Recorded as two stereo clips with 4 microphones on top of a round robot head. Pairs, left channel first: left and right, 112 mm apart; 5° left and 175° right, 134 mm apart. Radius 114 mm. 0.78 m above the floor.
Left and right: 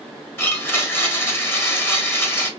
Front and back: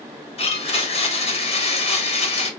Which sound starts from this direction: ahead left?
A blender, at 0.4 s.